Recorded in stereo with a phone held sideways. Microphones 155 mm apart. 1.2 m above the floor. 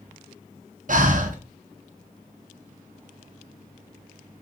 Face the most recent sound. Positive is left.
turn(degrees=-55)  # may be behind; listen again after turning